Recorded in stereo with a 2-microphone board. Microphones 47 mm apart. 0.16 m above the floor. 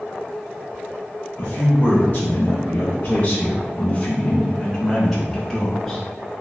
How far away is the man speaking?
About 1.7 m.